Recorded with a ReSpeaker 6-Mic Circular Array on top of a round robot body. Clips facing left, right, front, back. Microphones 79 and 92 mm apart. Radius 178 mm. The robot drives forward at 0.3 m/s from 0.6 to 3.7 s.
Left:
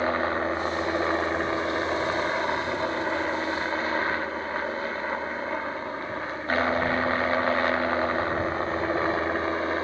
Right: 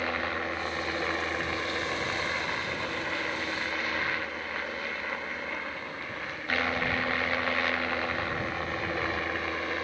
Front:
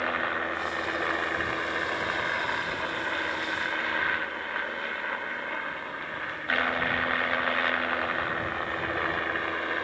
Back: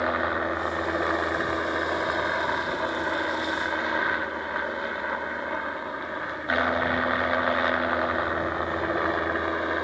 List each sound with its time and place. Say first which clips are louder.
0.0 s a helicopter: left 6 dB, back 4 dB; 120° left